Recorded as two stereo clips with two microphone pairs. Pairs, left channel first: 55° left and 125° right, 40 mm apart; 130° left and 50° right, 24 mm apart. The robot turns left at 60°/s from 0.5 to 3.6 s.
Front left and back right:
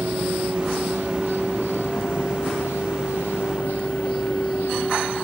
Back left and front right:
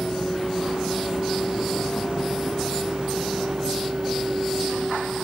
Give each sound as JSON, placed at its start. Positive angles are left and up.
{"t": 0.0, "sound": "a vehicle", "azimuth_deg": -165}